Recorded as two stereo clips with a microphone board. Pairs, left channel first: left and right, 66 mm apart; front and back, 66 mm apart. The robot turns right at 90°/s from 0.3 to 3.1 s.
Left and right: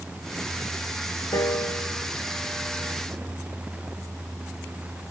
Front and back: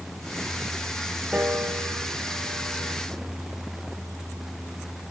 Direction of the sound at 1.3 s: 115° left.